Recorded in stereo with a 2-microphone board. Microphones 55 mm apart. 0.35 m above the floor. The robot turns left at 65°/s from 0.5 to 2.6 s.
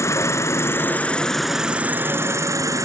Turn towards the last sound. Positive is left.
turn(degrees=-75)